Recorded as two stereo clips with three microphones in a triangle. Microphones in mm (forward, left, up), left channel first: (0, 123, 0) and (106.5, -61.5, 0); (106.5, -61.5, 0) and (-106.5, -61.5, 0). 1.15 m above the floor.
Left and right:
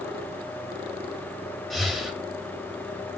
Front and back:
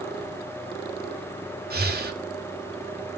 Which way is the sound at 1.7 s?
150° right.